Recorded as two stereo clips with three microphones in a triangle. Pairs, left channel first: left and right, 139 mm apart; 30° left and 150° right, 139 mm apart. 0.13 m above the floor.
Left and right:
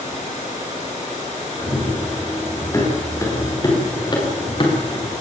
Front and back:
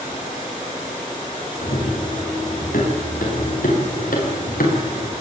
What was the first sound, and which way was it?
Running footsteps, 15° left.